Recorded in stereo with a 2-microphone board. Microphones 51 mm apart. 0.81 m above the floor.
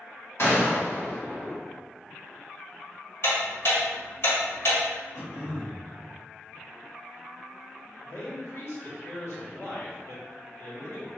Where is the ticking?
55° left (ahead or behind), 1.7 m.